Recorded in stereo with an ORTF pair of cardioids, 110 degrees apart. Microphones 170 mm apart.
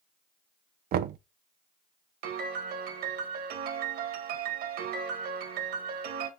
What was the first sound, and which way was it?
Knocking, 60° right.